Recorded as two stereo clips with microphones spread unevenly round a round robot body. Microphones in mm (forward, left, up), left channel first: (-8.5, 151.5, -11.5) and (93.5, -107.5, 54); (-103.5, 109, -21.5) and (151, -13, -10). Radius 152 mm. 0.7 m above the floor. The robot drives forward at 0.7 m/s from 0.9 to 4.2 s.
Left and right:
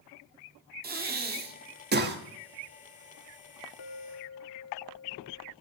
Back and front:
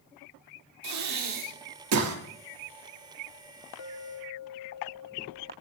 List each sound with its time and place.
0.8 s breathing: 5° right, 2 m; by 2.2 s 15° right, 1.4 m
3.8 s a clink: 140° left, 0.7 m; by 5.5 s 150° left, 0.9 m